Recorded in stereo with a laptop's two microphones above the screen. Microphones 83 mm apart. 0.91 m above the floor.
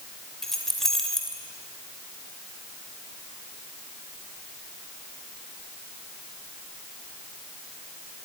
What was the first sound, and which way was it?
Keys jangling, 5° left (ahead or behind).